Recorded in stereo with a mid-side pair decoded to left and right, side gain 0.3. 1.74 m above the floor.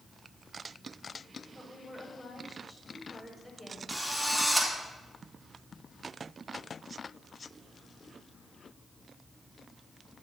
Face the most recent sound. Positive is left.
turn(degrees=10)